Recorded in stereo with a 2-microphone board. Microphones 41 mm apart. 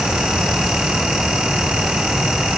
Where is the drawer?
I don't hear a drawer.